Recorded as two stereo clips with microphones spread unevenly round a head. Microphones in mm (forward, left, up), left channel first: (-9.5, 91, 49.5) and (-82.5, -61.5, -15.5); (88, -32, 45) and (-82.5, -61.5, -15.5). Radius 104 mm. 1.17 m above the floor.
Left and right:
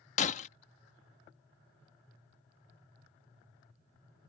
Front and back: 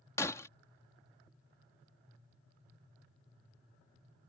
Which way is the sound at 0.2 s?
70° left.